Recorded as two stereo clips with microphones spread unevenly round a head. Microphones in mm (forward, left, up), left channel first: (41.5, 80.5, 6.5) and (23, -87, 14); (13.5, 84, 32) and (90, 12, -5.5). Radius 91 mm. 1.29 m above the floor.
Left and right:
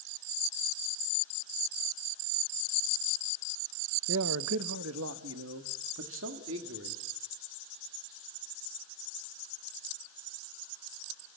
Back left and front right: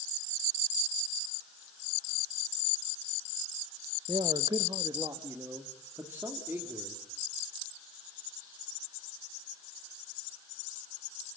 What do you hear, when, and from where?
4.1 s a man speaking: 110° right, 0.9 m; by 7.0 s 125° right, 3 m